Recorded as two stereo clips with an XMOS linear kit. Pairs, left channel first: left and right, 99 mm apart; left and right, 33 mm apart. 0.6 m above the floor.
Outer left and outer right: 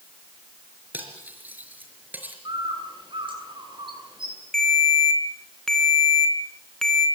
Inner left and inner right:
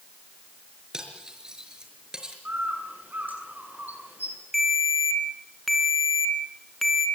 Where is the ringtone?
5° left (ahead or behind), 3 m.